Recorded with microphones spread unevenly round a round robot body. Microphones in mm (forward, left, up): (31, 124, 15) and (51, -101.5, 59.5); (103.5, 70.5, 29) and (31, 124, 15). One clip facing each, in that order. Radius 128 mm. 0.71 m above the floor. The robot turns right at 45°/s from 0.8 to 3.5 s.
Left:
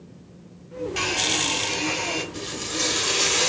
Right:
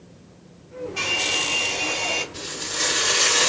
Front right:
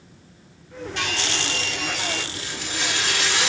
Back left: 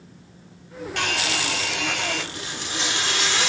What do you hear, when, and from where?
1.0 s a hair dryer: 115° left, 0.9 m; by 2.2 s 175° left, 0.9 m
2.3 s frying: 100° left, 1.3 m; by 3.5 s 155° left, 1.3 m